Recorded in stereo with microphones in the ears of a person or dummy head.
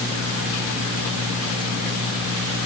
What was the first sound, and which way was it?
Only background noise.